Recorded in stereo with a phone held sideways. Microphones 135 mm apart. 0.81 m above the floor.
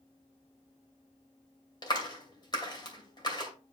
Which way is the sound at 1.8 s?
35° left (ahead or behind).